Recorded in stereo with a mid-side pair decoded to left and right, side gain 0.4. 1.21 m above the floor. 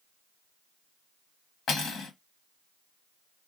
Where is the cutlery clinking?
65° left, 1.0 m.